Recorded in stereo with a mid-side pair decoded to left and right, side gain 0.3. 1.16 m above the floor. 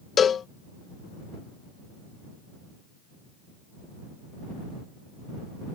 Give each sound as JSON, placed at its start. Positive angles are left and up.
{"t": 0.2, "sound": "a cowbell", "azimuth_deg": 70}